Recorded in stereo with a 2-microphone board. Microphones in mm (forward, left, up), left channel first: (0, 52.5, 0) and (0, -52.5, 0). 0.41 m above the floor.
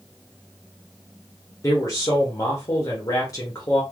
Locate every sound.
1.6 s a man speaking: 30° left (ahead or behind), 0.9 m